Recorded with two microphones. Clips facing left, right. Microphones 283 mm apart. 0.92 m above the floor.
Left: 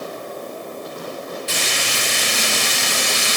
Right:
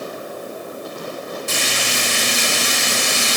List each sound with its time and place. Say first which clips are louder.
1.5 s frying: right 2 dB; 55° right (ahead or behind), 1.9 m